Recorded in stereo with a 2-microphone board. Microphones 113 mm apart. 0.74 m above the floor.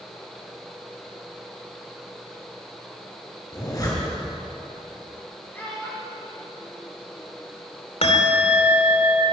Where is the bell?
60° left (ahead or behind), 2.5 m.